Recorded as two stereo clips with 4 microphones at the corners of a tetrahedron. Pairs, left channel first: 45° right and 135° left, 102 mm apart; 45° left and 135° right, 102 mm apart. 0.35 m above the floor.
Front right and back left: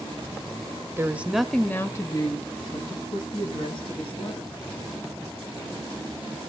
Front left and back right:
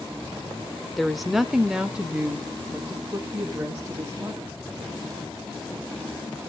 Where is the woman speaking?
130° left, 0.9 m; by 4.6 s 55° right, 3 m.